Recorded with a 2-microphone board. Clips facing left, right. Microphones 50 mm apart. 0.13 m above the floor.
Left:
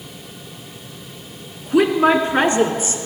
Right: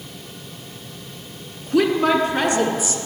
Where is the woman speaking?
15° left (ahead or behind), 1.3 m; by 3.1 s 45° left (ahead or behind), 1.5 m.